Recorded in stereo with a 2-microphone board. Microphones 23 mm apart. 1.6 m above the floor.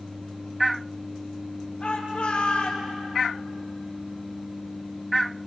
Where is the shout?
35° left (ahead or behind), 4 m.